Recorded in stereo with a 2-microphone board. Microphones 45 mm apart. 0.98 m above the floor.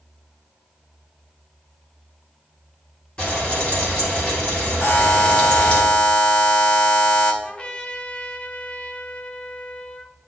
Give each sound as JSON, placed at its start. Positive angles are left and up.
{"t": 3.2, "sound": "frying", "side_deg": 25, "distance_m": 2.5}
{"t": 4.8, "sound": "a buzzer", "side_deg": 60, "distance_m": 2.5}
{"t": 7.4, "sound": "a trumpet", "side_deg": 25, "distance_m": 0.8}